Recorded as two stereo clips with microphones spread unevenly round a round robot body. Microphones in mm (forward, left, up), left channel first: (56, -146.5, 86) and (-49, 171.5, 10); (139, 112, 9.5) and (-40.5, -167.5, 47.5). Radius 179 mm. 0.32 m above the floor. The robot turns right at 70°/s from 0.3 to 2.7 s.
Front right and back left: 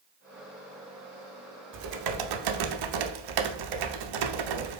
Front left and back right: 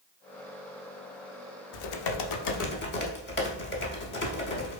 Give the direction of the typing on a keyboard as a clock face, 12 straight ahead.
10 o'clock.